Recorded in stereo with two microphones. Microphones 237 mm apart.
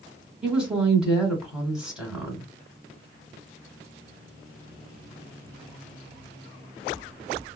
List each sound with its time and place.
0.4 s a woman speaking: 5° right (ahead or behind), 1.3 m